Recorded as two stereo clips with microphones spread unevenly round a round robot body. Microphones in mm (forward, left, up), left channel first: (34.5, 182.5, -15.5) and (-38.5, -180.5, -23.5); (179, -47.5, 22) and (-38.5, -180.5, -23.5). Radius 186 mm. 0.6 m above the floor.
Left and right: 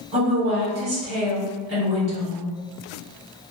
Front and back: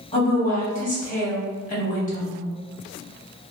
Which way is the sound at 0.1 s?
30° right.